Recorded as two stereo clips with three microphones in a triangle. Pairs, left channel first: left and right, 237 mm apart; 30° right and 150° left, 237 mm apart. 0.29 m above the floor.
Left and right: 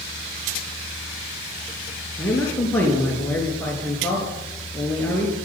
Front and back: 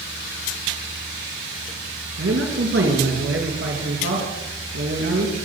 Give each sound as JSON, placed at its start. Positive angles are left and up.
{"t": 2.2, "sound": "a man speaking", "azimuth_deg": 170, "distance_m": 4.0}